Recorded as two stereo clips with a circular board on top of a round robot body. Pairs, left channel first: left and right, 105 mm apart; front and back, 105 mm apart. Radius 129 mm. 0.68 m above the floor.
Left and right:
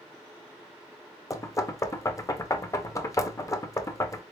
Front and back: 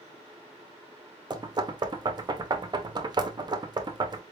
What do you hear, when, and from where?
1.3 s knocking: 145° left, 0.9 m